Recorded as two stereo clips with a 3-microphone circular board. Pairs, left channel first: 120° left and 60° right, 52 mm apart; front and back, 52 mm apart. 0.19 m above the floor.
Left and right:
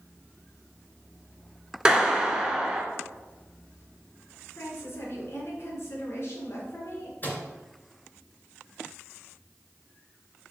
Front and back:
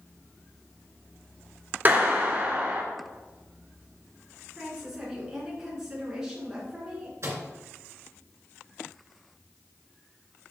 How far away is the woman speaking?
About 3 m.